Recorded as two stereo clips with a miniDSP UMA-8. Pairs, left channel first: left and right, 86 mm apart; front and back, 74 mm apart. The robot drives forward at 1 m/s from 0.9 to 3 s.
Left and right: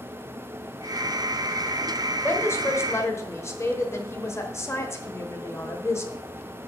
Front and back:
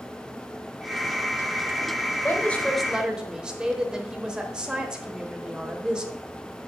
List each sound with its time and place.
2.2 s a woman speaking: 45° left, 1.1 m; by 6.2 s 110° left, 1.0 m